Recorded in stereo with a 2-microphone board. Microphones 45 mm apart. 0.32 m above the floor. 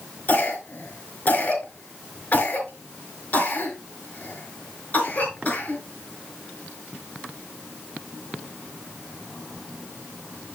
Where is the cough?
35° left (ahead or behind), 4.5 m.